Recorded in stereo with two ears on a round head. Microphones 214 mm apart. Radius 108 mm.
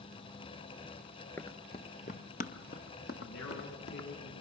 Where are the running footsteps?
10° left (ahead or behind), 0.7 m; by 4.1 s 45° left (ahead or behind), 2 m.